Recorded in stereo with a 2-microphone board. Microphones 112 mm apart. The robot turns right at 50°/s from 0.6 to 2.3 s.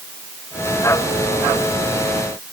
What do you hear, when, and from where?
Only background noise.